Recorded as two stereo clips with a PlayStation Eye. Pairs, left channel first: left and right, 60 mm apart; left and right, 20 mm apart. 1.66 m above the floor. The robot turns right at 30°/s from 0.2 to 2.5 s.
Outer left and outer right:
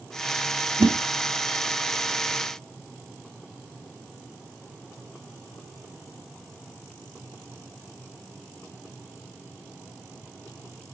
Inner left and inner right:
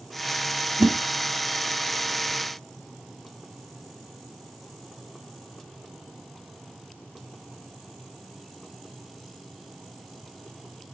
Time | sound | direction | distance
0.8 | a whoosh | 65° right (ahead or behind) | 2.0 m